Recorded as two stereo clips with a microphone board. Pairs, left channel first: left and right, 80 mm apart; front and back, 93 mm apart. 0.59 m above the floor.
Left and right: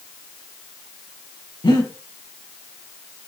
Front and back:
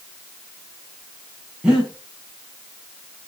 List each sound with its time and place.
1.6 s breathing: 100° left, 5 m